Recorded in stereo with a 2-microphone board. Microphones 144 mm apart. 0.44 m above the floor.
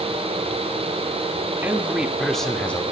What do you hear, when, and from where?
1.6 s a man speaking: 15° right (ahead or behind), 0.8 m; by 2.8 s 10° left (ahead or behind), 0.9 m